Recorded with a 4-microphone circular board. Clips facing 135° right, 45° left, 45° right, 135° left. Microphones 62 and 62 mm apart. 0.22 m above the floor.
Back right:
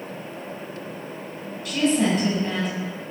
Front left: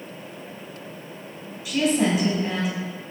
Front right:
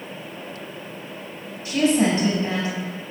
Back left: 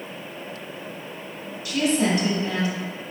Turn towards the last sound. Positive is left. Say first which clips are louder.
# even, front right 3 dB
turn(degrees=-35)